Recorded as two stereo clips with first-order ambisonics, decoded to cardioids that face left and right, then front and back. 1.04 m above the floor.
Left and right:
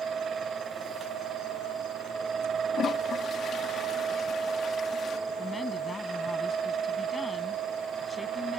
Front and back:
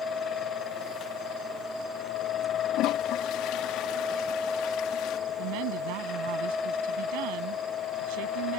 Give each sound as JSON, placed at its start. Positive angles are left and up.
{"t": 2.7, "sound": "a toilet flushing", "azimuth_deg": 30}
{"t": 5.3, "sound": "a woman speaking", "azimuth_deg": 170}